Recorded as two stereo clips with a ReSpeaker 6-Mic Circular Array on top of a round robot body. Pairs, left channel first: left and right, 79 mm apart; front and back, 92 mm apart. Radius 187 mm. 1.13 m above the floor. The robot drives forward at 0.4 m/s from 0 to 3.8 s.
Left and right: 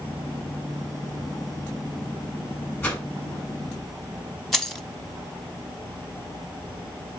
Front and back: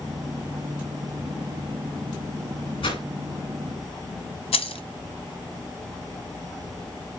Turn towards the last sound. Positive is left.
turn(degrees=5)